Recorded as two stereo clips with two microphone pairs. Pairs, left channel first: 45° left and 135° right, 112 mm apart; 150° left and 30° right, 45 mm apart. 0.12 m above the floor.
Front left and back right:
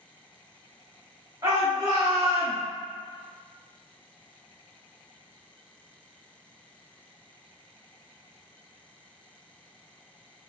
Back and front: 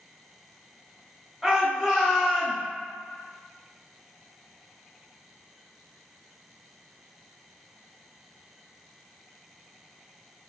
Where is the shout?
120° right, 1.7 m; by 2.6 s 155° right, 1.6 m.